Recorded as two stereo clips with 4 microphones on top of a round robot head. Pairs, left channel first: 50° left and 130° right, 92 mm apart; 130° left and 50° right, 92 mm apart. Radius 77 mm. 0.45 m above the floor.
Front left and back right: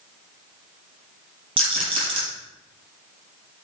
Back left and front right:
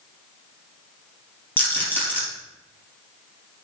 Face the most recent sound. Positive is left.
turn(degrees=-160)